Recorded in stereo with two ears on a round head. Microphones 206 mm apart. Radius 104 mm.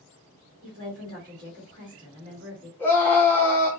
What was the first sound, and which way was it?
A woman speaking, 35° right (ahead or behind).